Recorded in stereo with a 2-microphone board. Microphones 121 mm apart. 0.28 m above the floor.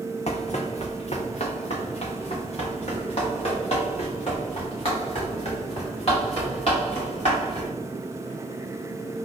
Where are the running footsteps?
65° left (ahead or behind), 0.7 m; by 7.7 s 50° left (ahead or behind), 4.5 m.